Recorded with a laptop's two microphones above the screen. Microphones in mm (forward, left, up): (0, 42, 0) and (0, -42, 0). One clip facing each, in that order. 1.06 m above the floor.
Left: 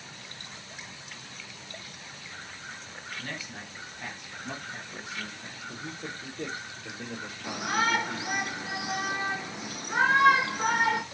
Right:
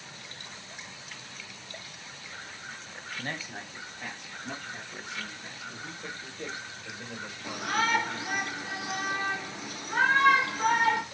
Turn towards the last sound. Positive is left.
turn(degrees=15)  # may be behind; listen again after turning